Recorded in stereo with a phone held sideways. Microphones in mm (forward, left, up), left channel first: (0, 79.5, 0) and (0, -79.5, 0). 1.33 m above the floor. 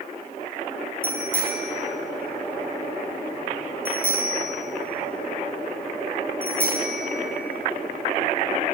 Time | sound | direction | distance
1.0 | a bicycle bell | 10° left (ahead or behind) | 6 m